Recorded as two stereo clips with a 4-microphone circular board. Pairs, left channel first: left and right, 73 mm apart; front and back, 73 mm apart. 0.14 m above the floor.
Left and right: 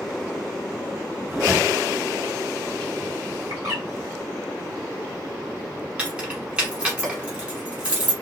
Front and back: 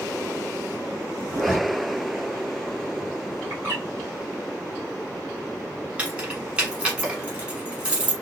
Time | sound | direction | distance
1.3 | a zipper | 135° right | 1.6 m
3.5 | a bird | 120° right | 1.6 m
6.0 | keys jangling | 140° right | 1.1 m